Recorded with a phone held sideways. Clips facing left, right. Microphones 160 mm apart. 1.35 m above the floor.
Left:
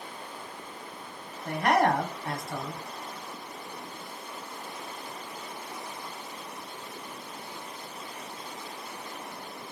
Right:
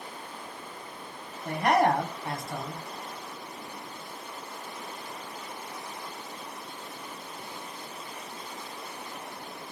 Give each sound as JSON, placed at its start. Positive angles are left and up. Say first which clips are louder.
{"t": 1.4, "sound": "a man speaking", "louder": "right 1 dB", "side_deg": -20, "distance_m": 0.7}